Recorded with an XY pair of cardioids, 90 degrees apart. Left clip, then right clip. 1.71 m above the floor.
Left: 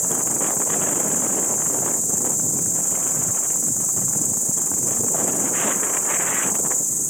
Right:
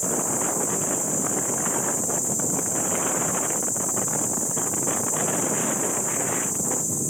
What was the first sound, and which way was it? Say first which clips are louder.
An insect: left 2 dB; 70° left.